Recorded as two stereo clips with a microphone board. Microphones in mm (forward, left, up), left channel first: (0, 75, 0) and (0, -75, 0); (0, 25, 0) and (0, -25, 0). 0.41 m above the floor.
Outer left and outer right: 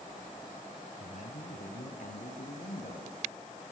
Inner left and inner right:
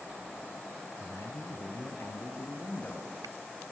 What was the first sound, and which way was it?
A man speaking, 60° left (ahead or behind).